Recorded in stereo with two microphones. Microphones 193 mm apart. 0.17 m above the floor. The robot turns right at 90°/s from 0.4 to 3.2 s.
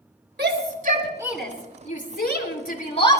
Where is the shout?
60° right (ahead or behind), 3.5 m; by 3.2 s 15° left (ahead or behind), 3.5 m.